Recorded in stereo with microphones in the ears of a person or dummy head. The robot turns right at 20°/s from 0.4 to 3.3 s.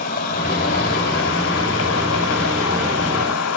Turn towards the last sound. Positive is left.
turn(degrees=110)